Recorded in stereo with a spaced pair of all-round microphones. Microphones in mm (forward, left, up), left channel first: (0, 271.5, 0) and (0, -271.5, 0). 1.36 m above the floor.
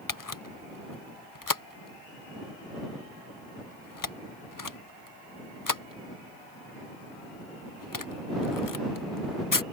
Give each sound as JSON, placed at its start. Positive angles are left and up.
{"t": 0.1, "sound": "a camera shutter", "side_deg": 35}